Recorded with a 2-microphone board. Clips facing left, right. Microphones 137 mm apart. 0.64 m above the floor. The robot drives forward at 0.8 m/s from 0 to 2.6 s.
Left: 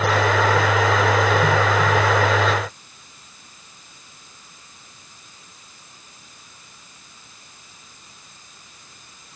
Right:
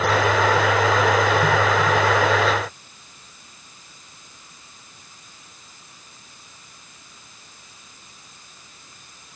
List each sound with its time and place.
Only background noise.